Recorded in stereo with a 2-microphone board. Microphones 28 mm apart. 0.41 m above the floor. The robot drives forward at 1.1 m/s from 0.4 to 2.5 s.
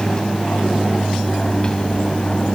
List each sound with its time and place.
0.0 s an aircraft: 30° left (ahead or behind)